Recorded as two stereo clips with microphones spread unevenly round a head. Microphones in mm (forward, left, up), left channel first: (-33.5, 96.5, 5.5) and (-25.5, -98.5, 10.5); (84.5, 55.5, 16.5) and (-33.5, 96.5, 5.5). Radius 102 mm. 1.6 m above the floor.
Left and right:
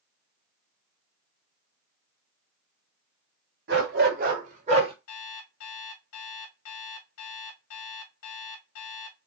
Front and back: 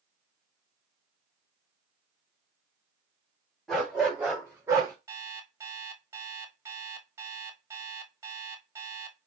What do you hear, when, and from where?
3.7 s a dog barking: 105° right, 2 m; by 4.9 s 135° right, 1.7 m
5.1 s an alarm clock: 95° left, 2.5 m